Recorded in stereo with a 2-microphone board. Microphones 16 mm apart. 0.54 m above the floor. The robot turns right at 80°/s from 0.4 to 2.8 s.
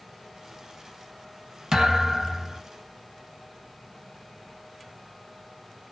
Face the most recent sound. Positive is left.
turn(degrees=45)